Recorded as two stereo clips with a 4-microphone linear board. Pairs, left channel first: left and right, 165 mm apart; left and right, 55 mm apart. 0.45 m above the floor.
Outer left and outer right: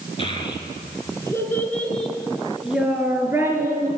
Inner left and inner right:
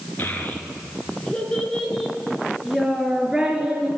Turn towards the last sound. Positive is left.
turn(degrees=-20)  # may be behind; listen again after turning